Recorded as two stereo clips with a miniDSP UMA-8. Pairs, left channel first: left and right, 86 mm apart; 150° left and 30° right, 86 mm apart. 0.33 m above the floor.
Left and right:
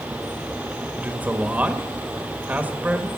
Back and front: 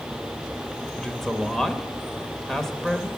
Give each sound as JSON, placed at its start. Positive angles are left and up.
{"t": 1.0, "sound": "a man speaking", "azimuth_deg": -130, "distance_m": 1.0}